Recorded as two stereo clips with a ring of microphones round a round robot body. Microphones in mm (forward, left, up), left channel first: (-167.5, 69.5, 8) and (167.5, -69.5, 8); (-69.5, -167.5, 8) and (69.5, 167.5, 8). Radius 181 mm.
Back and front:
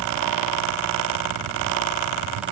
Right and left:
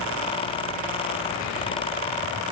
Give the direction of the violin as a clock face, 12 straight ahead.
I don't hear a violin.